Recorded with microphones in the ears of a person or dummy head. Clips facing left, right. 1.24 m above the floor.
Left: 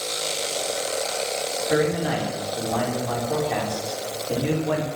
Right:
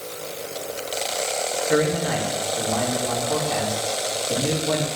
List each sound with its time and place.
1.7 s a man speaking: centre (ahead or behind), 4 m